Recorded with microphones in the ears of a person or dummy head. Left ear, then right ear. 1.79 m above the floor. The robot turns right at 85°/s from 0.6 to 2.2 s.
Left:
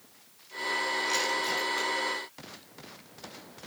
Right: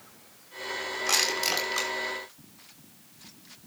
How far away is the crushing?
About 6.5 m.